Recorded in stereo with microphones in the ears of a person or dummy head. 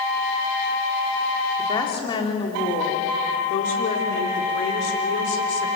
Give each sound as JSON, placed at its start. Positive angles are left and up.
{"t": 1.6, "sound": "a woman speaking", "side_deg": 25, "distance_m": 3.0}